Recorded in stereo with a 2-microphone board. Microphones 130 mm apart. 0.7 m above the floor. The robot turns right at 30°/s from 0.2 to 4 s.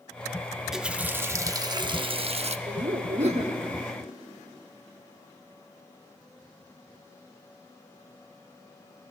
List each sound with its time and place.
0.6 s a running tap: straight behind, 0.7 m; by 2.6 s 120° right, 0.7 m
2.7 s laughter: 60° right (ahead or behind), 1.6 m; by 3.6 s 50° right (ahead or behind), 1.6 m